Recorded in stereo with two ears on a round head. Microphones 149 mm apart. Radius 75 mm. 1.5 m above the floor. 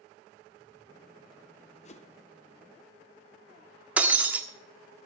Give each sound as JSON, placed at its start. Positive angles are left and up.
{"t": 1.9, "sound": "a whoosh", "side_deg": 40, "distance_m": 0.9}
{"t": 4.0, "sound": "breaking glass", "side_deg": -10, "distance_m": 1.4}